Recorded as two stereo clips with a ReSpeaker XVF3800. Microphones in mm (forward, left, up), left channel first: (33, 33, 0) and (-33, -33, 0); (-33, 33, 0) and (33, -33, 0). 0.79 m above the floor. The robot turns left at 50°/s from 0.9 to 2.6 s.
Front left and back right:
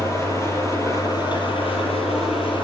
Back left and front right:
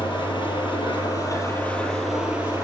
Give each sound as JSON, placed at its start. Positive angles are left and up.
{"t": 0.0, "sound": "an engine running", "azimuth_deg": 105, "distance_m": 8.0}